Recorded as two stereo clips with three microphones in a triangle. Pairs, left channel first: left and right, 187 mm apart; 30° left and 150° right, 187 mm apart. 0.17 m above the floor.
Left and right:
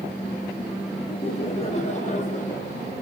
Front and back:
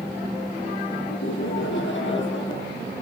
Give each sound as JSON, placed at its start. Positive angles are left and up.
{"t": 1.1, "sound": "laughter", "azimuth_deg": 30, "distance_m": 5.0}